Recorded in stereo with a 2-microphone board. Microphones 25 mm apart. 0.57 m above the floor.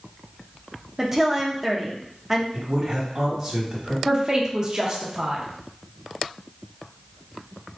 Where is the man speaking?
30° right (ahead or behind), 1.4 m.